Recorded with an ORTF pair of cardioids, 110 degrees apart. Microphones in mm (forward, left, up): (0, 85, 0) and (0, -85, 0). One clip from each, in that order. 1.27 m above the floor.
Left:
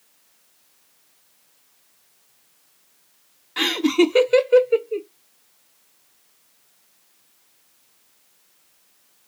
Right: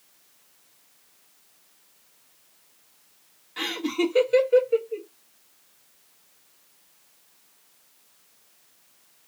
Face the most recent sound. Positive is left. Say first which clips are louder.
# left 8 dB
turn(degrees=40)